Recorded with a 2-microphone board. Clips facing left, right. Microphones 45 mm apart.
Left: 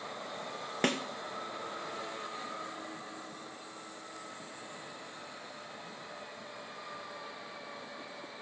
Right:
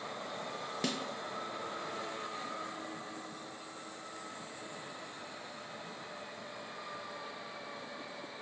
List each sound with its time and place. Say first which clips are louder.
0.8 s a snare drum: left 6 dB; 45° left (ahead or behind), 1.2 m